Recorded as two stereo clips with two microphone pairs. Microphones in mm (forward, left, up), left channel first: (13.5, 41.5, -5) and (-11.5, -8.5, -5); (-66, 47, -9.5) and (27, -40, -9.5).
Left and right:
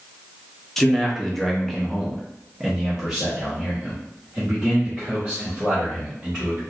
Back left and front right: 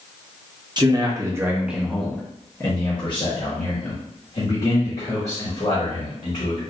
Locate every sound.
0.8 s a man speaking: 15° right, 0.9 m; by 6.6 s 160° left, 2.5 m